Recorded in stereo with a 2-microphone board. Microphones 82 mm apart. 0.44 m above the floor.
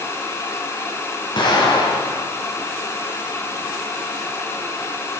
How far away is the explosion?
About 2.5 m.